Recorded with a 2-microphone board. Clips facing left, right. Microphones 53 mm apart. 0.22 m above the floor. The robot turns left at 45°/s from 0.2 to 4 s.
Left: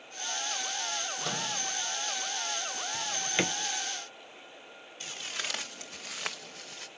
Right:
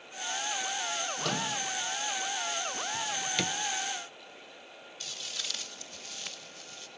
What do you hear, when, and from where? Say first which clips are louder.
1.2 s a microwave: right 4 dB; 60° right (ahead or behind), 5 m; by 1.5 s 75° right (ahead or behind), 5 m
2.9 s a drawer: left 3 dB; 10° left (ahead or behind), 0.8 m; by 3.6 s 35° left (ahead or behind), 0.8 m
5.0 s footsteps: left 4 dB; 35° left (ahead or behind), 1.1 m; by 6.9 s 75° left (ahead or behind), 1.5 m